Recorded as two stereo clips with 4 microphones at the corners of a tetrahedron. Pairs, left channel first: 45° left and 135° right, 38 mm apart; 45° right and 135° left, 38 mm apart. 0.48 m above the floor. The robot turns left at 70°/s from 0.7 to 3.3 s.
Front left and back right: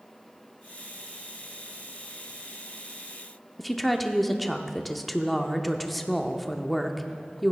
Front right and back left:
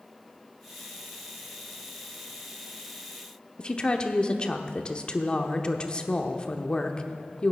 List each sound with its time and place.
3.6 s a woman speaking: 45° right, 0.8 m